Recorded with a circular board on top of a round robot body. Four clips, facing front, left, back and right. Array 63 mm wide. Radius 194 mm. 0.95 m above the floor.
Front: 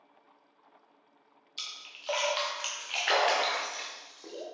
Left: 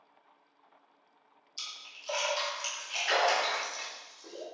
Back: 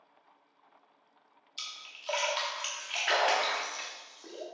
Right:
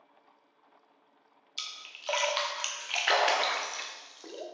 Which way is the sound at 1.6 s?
80° right.